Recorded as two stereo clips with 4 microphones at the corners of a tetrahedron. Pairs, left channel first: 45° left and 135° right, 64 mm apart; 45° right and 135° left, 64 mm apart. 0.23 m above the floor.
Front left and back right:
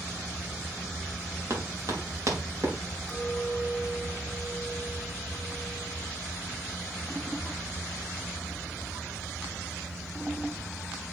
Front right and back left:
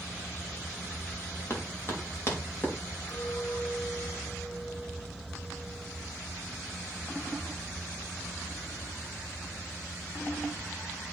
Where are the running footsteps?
95° right, 4.5 m; by 2.7 s 100° right, 5.5 m.